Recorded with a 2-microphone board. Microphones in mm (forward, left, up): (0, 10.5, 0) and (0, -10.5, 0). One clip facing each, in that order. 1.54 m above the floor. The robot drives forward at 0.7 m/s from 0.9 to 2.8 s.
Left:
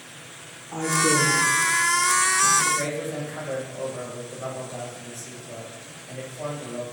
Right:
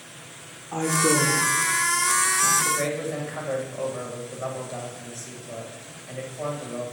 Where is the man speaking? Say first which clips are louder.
Even; 20° right (ahead or behind), 1.7 m.